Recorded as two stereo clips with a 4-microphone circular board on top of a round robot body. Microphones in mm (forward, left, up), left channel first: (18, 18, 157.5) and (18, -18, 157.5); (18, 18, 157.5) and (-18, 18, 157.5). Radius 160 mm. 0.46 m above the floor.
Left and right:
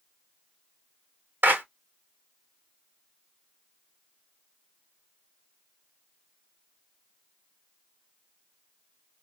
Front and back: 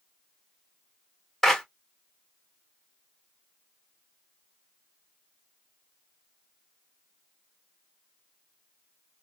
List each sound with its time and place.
1.4 s a clap: 85° right, 1.5 m